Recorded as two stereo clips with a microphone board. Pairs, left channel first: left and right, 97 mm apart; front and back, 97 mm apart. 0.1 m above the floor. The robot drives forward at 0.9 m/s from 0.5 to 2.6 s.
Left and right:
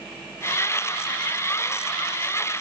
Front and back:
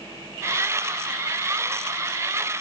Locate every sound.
Only background noise.